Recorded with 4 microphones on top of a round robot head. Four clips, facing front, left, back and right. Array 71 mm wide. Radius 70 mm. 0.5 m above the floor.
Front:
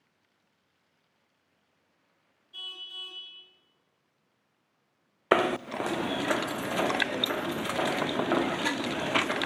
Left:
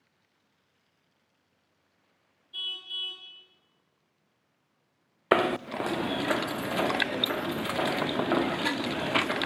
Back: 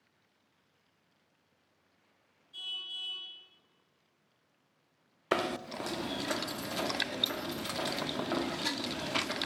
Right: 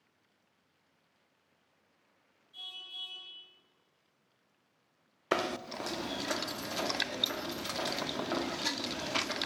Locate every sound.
2.5 s a car horn: 55° left, 4 m
5.3 s knocking: 45° left, 0.5 m